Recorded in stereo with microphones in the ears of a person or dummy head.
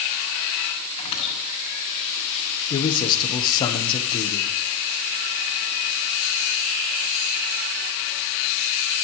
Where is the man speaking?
35° left (ahead or behind), 1.9 m.